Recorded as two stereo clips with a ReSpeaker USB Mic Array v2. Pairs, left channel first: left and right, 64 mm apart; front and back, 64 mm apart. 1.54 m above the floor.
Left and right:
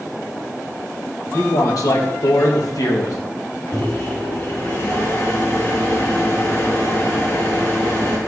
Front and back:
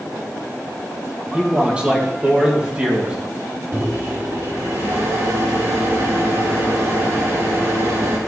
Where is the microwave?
140° left, 2.5 m.